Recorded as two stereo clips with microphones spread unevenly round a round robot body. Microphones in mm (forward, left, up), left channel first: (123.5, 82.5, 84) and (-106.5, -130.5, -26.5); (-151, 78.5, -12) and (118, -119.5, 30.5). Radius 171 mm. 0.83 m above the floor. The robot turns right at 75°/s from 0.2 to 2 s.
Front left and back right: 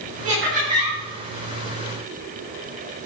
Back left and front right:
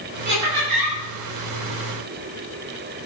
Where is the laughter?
100° right, 5.5 m; by 1.0 s 45° right, 5.5 m.